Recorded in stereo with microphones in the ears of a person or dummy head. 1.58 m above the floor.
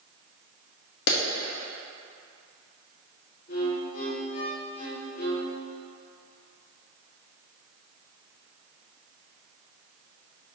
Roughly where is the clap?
Left.